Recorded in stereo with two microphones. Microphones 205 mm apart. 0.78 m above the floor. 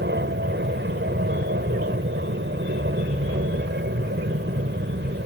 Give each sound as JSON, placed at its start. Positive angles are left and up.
{"t": 0.0, "sound": "an aircraft", "side_deg": -60}